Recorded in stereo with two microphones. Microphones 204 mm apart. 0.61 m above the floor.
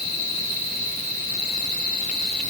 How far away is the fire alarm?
No fire alarm in this recording.